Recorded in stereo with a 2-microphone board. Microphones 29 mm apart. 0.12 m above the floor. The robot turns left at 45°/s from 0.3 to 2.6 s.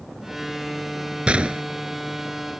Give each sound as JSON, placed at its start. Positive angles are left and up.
{"t": 1.3, "sound": "a gunshot", "side_deg": -40}